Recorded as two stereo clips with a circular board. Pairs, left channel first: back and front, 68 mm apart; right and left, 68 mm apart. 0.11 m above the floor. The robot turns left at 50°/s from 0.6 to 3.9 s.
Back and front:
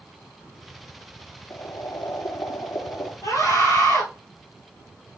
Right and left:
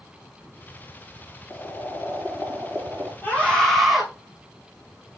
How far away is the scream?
About 2.5 m.